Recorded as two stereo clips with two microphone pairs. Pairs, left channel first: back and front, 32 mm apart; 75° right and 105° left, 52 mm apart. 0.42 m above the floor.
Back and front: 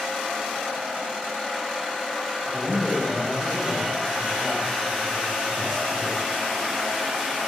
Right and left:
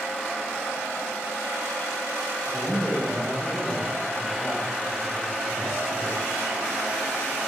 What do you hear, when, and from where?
2.5 s a man speaking: straight behind, 1.2 m